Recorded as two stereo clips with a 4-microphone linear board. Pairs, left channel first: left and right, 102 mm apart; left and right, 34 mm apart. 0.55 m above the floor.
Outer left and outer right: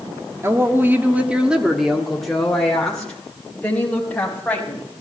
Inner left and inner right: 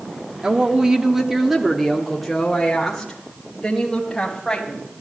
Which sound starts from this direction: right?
A woman speaking, at 0.4 s.